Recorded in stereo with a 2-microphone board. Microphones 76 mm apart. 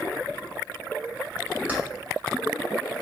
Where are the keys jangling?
20° right (ahead or behind), 0.7 m.